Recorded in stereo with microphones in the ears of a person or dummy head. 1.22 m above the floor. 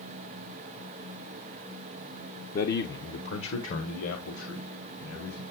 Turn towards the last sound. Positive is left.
turn(degrees=75)  # may be behind; listen again after turning